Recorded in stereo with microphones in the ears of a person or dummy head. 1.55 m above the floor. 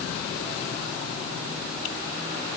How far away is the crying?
No crying in this recording.